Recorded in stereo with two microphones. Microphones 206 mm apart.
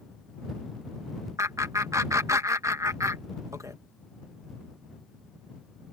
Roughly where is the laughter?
Centre.